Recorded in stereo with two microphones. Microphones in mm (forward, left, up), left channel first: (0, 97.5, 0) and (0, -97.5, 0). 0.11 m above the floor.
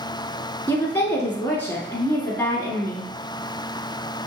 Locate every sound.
0.7 s a woman speaking: 10° left (ahead or behind), 1.2 m